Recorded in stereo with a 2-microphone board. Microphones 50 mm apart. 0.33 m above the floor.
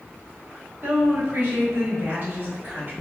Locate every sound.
0.8 s a woman speaking: 50° right (ahead or behind), 1.6 m; by 2.9 s 40° right (ahead or behind), 1.4 m